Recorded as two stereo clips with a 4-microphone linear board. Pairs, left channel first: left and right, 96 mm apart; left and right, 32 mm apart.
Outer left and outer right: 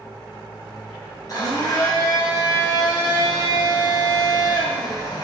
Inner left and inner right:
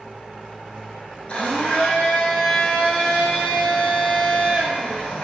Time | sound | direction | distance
1.3 | a blender | 40° left (ahead or behind) | 0.9 m